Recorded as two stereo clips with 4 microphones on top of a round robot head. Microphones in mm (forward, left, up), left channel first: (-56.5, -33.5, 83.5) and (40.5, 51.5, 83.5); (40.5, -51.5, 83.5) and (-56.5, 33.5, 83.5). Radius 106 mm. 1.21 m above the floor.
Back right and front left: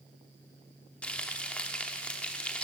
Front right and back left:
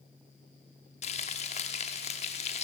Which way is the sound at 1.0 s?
60° right.